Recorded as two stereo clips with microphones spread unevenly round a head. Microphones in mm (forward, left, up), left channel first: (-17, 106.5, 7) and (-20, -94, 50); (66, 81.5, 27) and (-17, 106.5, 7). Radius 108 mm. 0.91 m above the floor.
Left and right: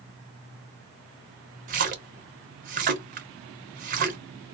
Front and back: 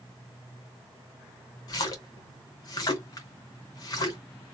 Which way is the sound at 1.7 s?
55° right.